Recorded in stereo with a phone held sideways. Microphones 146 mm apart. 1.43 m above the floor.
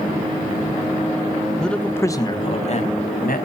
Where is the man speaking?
5° left (ahead or behind), 1.4 m; by 3.4 s 75° left (ahead or behind), 1.4 m.